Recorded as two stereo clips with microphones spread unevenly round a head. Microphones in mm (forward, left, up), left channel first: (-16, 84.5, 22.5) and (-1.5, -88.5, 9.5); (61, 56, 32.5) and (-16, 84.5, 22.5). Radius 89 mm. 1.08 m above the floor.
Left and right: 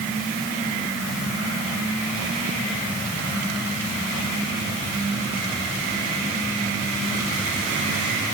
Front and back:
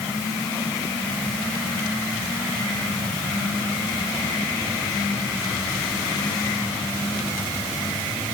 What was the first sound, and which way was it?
Only background noise.